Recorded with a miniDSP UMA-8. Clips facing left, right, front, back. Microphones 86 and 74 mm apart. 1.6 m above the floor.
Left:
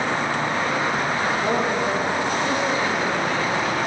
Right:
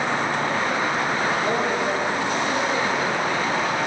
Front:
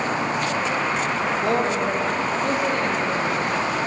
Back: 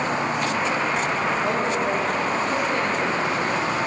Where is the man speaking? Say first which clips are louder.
Left 1 dB, front 1 dB; 15° left, 2.5 m; by 3.7 s 35° left, 4.5 m.